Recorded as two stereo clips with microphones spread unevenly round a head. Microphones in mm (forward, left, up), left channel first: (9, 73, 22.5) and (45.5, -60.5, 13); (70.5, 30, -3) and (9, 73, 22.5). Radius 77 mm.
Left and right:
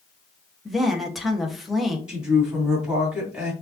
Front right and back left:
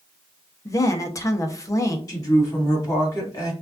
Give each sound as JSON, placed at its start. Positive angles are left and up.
{"t": 0.7, "sound": "a woman speaking", "azimuth_deg": 15, "distance_m": 1.1}
{"t": 2.1, "sound": "a woman speaking", "azimuth_deg": 10, "distance_m": 3.0}